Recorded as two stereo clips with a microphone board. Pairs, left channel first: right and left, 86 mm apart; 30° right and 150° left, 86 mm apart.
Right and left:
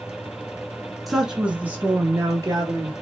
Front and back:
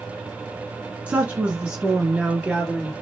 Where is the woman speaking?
Straight behind, 1.1 m; by 2.9 s 65° left, 1.7 m.